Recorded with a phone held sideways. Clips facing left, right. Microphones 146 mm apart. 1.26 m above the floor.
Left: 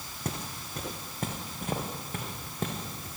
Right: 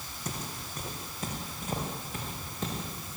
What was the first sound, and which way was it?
Footsteps, 60° left (ahead or behind).